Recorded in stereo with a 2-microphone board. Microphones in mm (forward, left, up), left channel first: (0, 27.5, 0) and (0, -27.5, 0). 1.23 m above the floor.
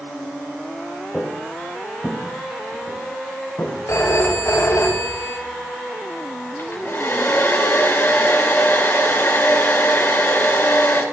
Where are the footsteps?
20° left (ahead or behind), 2.5 m; by 3.8 s 65° left (ahead or behind), 4.5 m.